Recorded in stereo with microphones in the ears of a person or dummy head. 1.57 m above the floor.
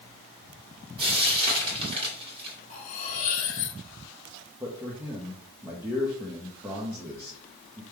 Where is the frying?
30° right (ahead or behind), 1.7 m.